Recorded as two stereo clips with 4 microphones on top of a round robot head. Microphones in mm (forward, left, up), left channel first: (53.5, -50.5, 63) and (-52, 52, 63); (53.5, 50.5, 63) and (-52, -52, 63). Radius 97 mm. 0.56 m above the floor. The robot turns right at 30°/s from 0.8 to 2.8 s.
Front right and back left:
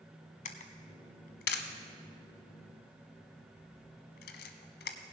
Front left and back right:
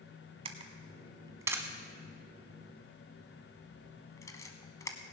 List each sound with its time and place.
0.5 s a camera shutter: 85° right, 0.7 m; by 5.0 s 25° right, 0.7 m